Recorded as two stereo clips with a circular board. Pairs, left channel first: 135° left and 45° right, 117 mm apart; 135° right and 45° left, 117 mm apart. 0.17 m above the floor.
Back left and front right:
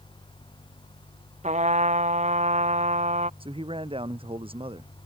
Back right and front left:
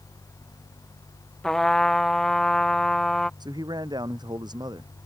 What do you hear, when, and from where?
1.4 s a trumpet: 50° right
3.4 s a man speaking: 5° right